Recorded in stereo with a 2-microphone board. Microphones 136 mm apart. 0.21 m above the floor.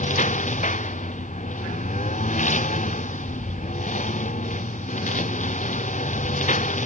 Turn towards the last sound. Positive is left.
turn(degrees=65)  # may be behind; listen again after turning